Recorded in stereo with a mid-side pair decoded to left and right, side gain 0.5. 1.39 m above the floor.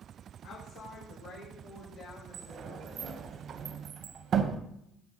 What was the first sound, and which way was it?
A woman speaking, 70° left.